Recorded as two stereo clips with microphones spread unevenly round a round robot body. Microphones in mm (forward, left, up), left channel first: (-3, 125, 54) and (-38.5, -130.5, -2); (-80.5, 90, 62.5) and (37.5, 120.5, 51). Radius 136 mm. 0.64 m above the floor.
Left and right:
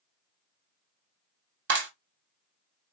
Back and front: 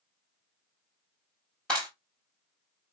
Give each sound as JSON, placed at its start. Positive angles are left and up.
{"t": 1.7, "sound": "a clap", "azimuth_deg": -75, "distance_m": 1.4}